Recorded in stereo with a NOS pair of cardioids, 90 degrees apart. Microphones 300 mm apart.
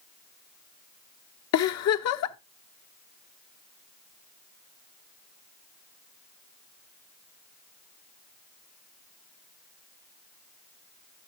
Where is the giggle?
60° left, 0.9 m.